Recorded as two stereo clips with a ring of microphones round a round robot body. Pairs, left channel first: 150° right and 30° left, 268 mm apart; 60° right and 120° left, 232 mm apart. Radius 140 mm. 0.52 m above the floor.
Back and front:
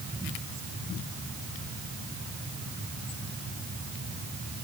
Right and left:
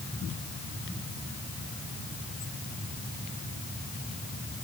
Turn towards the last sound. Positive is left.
No sound to turn to.